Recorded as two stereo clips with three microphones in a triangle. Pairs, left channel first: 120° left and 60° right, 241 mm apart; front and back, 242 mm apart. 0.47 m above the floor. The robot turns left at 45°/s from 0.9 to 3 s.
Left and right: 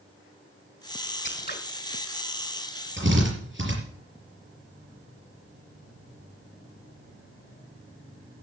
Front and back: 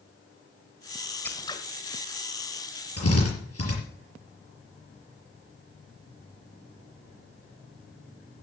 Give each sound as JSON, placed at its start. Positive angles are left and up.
{"t": 1.2, "sound": "scissors", "azimuth_deg": 80, "distance_m": 1.4}
{"t": 3.0, "sound": "a drill", "azimuth_deg": -20, "distance_m": 6.0}